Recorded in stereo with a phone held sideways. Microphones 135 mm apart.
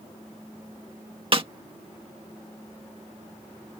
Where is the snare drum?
40° right (ahead or behind).